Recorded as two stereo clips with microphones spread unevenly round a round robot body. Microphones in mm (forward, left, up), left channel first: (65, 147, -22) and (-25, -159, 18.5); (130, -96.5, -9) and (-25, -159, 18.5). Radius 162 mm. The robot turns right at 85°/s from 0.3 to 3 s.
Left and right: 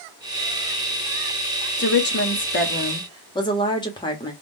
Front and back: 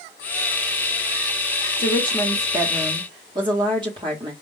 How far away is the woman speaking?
About 1.1 m.